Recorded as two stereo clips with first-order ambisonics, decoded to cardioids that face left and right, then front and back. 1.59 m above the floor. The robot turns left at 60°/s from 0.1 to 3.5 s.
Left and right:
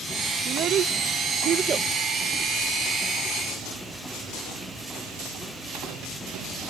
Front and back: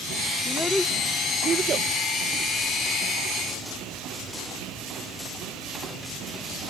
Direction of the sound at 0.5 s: 65° right.